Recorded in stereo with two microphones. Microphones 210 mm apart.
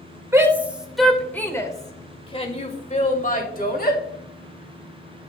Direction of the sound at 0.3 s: 15° right (ahead or behind).